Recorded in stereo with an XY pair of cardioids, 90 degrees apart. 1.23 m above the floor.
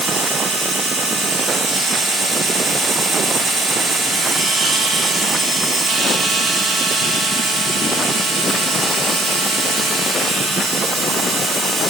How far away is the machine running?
About 4 m.